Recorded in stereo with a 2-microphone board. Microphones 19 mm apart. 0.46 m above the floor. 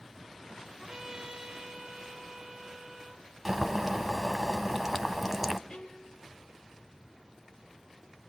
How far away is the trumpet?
About 2 m.